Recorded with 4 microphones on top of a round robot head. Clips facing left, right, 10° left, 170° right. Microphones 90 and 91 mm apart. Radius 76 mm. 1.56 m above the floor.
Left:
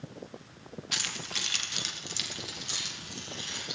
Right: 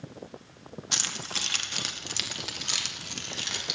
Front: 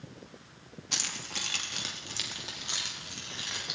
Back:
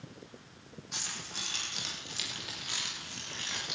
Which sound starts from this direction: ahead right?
Keys jangling, at 0.9 s.